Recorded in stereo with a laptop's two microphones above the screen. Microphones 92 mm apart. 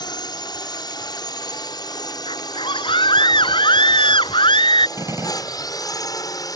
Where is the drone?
50° left (ahead or behind); by 6.6 s 40° left (ahead or behind).